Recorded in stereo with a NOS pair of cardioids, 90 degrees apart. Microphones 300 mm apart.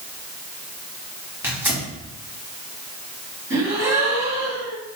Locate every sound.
1.4 s tearing paper: 5° right, 2.0 m
3.5 s a gasp: 10° right, 2.0 m